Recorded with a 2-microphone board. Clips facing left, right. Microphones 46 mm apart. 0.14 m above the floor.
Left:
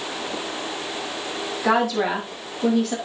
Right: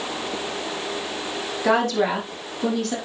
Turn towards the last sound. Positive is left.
turn(degrees=5)  # may be behind; listen again after turning